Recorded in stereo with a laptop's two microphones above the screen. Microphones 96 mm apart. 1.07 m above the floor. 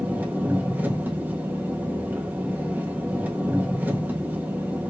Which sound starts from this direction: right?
An engine running, at 0.0 s.